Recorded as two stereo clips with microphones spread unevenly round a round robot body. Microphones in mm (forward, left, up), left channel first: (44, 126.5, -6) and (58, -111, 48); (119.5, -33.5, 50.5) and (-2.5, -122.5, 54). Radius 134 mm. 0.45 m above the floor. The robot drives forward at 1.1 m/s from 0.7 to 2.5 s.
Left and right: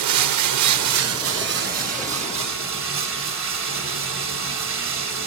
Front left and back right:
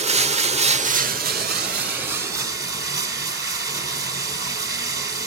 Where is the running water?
100° right, 0.9 m; by 5.3 s 160° right, 2.5 m.